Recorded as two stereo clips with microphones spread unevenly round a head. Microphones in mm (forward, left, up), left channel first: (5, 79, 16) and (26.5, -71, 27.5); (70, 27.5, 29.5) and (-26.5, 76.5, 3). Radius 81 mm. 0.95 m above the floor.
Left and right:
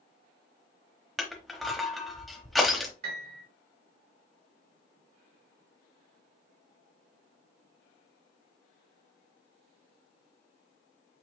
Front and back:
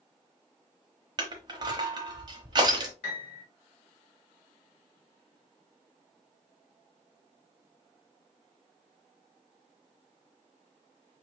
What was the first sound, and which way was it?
Crushing, 165° right.